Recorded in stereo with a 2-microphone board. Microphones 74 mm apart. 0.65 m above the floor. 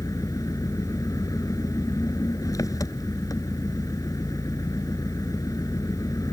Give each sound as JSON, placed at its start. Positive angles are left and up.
{"t": 0.0, "sound": "an engine running", "side_deg": 50}